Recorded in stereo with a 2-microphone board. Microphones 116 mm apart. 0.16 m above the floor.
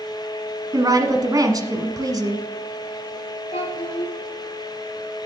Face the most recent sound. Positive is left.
turn(degrees=65)  # may be behind; listen again after turning